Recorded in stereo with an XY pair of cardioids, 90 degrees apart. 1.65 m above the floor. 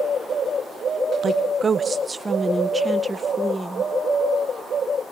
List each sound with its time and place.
1.2 s a woman speaking: 45° right, 1.1 m; by 3.9 s 15° right, 2.5 m